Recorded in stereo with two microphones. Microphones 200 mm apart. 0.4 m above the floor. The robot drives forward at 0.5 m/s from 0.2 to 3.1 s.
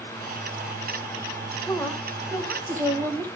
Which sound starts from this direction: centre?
A woman speaking, at 1.7 s.